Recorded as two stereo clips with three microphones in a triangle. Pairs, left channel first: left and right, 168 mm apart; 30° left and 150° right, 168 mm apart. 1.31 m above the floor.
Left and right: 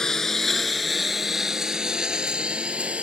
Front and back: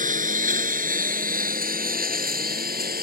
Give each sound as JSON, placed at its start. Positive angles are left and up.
{"t": 0.0, "sound": "a lawn mower", "azimuth_deg": 175}